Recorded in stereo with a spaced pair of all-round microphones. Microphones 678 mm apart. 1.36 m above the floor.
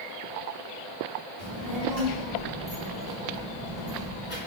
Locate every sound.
1.4 s a child speaking: 50° left (ahead or behind), 3 m; by 4.4 s 70° left (ahead or behind), 4.5 m